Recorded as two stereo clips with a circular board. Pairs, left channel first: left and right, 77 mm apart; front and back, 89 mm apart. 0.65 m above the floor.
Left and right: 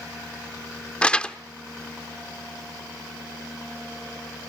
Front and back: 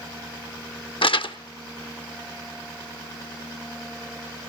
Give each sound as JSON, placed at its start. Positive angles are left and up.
{"t": 1.0, "sound": "crumpling", "azimuth_deg": 15, "distance_m": 0.8}